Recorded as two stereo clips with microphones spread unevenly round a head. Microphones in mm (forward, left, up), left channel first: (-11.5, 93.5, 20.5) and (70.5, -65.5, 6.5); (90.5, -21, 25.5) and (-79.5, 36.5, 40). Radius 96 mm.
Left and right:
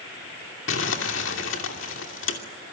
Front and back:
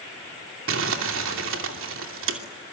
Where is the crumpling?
150° left, 2.5 m.